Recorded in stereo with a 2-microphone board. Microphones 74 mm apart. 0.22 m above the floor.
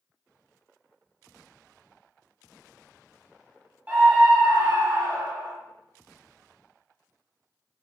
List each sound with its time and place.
3.9 s a scream: 20° right (ahead or behind), 1.2 m; by 5.5 s 40° right (ahead or behind), 1.7 m